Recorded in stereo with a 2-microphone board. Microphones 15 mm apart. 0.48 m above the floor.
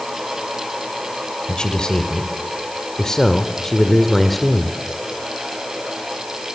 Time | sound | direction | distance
1.5 | a man speaking | 60° left (ahead or behind) | 2.5 m